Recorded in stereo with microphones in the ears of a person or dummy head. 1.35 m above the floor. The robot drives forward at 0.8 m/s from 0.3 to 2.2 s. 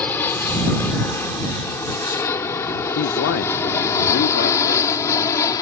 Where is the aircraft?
10° left (ahead or behind); by 5.6 s 20° left (ahead or behind).